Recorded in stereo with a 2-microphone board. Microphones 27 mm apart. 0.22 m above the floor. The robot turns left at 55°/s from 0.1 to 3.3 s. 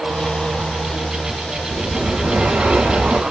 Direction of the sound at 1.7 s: 30° right.